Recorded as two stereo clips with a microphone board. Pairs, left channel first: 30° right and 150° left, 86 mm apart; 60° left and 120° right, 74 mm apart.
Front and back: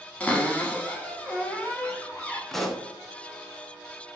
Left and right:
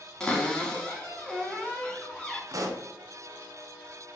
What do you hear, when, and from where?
0.2 s a cupboard door: 5° left, 0.7 m
2.5 s a pop: 115° right, 0.5 m